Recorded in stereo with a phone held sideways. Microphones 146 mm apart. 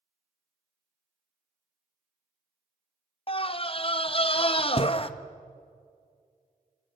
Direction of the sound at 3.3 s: 40° left (ahead or behind).